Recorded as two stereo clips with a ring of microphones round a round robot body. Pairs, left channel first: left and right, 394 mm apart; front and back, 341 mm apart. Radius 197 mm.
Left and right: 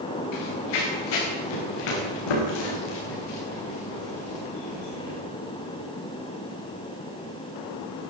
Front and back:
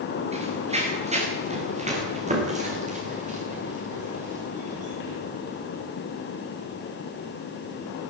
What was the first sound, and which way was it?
Running footsteps, 110° left.